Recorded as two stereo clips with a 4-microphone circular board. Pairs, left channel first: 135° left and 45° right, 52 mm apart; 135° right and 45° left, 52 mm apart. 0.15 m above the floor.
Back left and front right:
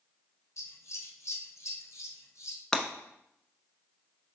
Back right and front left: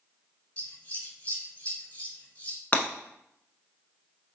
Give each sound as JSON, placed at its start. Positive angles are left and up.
{"t": 0.6, "sound": "scissors", "azimuth_deg": 160, "distance_m": 1.1}
{"t": 2.7, "sound": "breaking glass", "azimuth_deg": -160, "distance_m": 0.7}